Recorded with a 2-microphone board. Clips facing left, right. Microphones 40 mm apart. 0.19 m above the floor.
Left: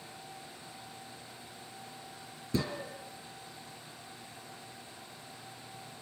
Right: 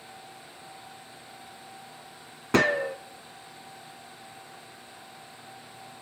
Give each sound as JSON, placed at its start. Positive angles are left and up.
{"t": 2.5, "sound": "a gunshot", "side_deg": -65, "distance_m": 0.9}